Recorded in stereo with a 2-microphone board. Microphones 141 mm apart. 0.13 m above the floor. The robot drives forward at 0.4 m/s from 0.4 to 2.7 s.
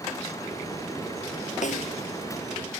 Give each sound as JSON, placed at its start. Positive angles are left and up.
{"t": 1.6, "sound": "a snare drum", "side_deg": 65}